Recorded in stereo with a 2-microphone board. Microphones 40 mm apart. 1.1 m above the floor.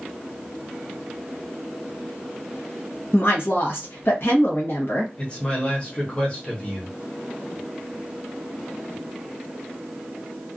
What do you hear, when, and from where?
3.1 s a woman speaking: 60° left (ahead or behind), 0.9 m
5.2 s a man speaking: 25° left (ahead or behind), 0.8 m